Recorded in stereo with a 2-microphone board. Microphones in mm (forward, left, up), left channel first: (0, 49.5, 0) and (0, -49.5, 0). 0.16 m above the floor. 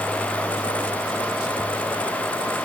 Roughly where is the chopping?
I don't hear chopping.